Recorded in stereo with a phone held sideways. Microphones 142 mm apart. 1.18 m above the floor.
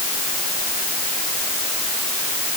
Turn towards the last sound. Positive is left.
No sound to turn to.